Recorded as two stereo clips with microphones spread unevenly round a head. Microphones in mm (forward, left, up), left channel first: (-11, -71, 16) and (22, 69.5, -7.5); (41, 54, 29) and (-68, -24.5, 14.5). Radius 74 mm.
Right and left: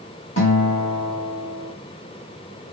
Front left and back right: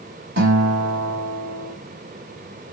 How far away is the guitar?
About 1.5 m.